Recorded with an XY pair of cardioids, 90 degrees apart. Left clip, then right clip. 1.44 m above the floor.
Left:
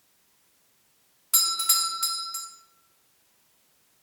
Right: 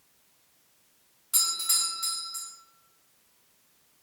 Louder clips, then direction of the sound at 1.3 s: Left 3 dB; 50° left.